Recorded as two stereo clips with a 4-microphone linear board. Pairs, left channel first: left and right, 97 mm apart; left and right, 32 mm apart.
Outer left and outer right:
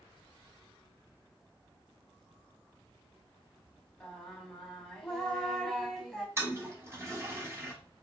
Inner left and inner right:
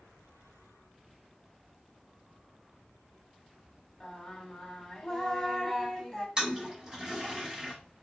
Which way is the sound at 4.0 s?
5° left (ahead or behind).